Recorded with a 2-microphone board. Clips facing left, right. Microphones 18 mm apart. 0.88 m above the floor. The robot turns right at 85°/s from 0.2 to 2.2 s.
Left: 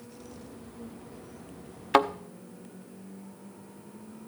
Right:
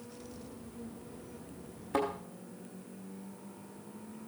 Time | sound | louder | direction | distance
1.9 | a thud | left 9 dB | 75° left (ahead or behind) | 0.7 m